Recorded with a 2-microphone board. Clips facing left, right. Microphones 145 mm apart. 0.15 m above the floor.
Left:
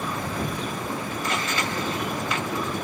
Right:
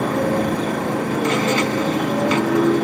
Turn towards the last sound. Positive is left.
turn(degrees=-85)